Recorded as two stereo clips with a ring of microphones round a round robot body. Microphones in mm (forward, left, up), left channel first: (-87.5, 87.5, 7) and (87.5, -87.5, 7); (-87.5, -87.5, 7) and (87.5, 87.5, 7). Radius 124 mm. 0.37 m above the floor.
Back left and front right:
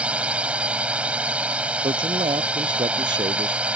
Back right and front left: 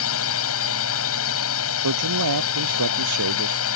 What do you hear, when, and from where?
0.0 s a drone: 130° right
1.8 s a man speaking: 30° left